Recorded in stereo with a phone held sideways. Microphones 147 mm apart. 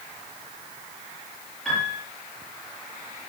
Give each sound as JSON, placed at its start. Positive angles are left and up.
{"t": 1.6, "sound": "a piano", "side_deg": 5, "distance_m": 7.5}